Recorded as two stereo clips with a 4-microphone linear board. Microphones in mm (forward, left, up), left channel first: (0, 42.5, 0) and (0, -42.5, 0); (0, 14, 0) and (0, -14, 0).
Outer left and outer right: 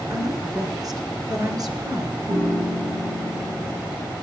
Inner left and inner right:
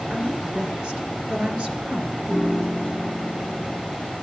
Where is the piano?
70° right (ahead or behind), 3.5 m.